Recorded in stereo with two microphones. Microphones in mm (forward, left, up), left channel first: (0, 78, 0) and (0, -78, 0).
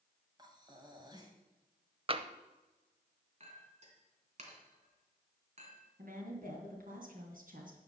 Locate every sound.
0.4 s breathing: 30° right (ahead or behind), 1.8 m
2.1 s tapping: 35° right (ahead or behind), 0.7 m
3.4 s a clink: 50° right (ahead or behind), 2.5 m
6.0 s a woman speaking: 65° right (ahead or behind), 3 m